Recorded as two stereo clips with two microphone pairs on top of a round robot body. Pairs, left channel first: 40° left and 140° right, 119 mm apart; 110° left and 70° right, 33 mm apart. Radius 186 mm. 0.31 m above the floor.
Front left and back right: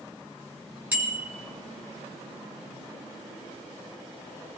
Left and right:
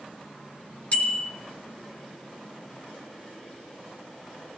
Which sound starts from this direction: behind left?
A bicycle bell, at 0.9 s.